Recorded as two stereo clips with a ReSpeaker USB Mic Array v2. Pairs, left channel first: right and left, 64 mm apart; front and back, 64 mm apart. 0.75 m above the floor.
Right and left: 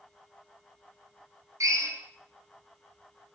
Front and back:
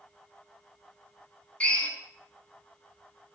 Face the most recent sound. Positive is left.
turn(degrees=70)